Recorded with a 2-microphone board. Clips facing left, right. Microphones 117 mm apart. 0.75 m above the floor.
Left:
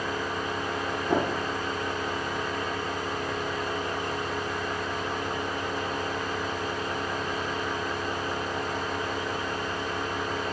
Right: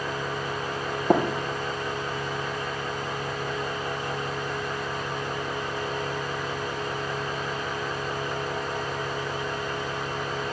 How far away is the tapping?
About 4.5 m.